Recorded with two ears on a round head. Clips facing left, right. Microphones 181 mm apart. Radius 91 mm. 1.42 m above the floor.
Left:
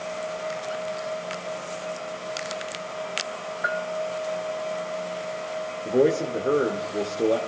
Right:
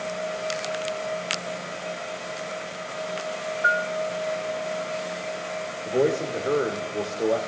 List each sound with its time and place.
3.6 s a bell: 10° left (ahead or behind), 0.9 m
5.8 s a man speaking: 20° left (ahead or behind), 1.2 m